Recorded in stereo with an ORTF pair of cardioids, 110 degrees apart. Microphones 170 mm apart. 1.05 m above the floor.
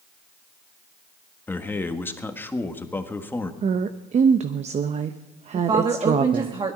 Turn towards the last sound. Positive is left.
turn(degrees=-30)